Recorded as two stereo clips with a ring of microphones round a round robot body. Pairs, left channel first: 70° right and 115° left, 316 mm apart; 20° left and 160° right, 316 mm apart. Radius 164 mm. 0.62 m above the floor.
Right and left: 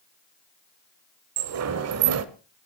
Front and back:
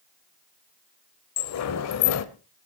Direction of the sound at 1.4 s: 65° left.